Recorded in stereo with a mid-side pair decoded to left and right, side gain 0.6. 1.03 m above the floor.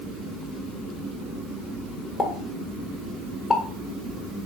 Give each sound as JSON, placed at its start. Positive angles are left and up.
{"t": 2.2, "sound": "a pop", "azimuth_deg": 25, "distance_m": 1.0}